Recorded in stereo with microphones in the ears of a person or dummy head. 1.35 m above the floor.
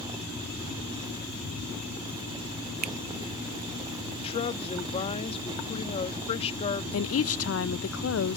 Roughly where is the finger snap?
Right.